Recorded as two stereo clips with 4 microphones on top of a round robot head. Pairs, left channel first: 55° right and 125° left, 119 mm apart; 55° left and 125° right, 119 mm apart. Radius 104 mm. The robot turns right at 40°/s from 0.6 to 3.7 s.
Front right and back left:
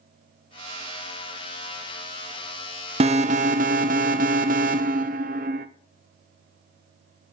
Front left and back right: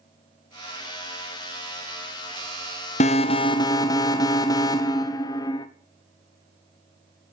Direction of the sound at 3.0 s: 85° left.